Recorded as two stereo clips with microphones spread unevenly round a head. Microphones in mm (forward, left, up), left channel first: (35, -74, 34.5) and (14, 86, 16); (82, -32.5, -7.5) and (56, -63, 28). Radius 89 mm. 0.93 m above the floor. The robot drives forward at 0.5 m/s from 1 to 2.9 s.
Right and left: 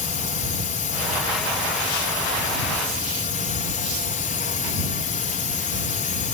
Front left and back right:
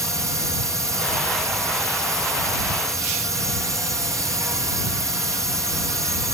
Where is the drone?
95° right; by 6.3 s 100° right.